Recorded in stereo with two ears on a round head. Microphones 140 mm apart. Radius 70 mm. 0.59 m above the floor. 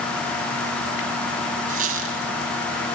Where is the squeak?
60° right (ahead or behind), 3 m.